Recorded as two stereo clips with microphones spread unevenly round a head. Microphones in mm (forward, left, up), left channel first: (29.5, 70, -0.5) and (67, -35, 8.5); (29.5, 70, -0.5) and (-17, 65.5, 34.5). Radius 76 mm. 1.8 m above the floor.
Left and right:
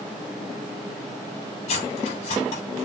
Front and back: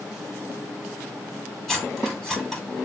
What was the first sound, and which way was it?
Cutlery clinking, 95° left.